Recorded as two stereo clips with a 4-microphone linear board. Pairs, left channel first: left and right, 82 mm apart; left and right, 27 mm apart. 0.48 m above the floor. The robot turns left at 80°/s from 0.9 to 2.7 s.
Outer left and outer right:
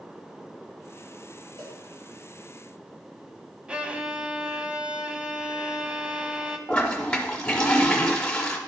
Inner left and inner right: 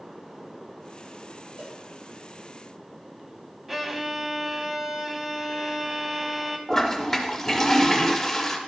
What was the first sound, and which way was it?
A cowbell, 50° right (ahead or behind).